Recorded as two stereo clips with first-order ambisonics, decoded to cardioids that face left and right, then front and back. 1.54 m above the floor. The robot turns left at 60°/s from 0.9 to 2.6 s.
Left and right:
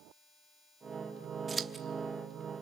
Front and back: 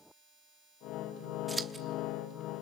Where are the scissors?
120° right, 1.0 m; by 1.8 s 140° right, 1.0 m.